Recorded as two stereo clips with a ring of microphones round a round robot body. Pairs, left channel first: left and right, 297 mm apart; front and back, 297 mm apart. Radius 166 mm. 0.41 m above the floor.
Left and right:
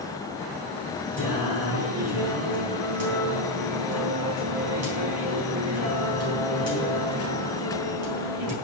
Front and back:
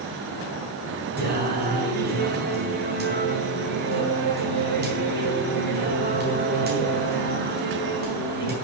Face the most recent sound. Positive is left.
turn(degrees=-125)